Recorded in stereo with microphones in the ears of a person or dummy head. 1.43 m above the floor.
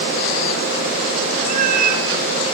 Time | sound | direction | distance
1.5 | a cat meowing | 55° right (ahead or behind) | 2 m